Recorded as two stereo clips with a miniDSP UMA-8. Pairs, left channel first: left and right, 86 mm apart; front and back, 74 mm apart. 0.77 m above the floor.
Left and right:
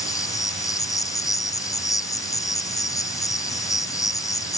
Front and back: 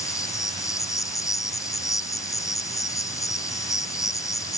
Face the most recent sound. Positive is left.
turn(degrees=45)